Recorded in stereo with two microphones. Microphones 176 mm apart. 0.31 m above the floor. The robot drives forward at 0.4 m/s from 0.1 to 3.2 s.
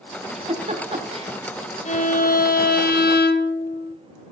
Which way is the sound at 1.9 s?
45° left (ahead or behind).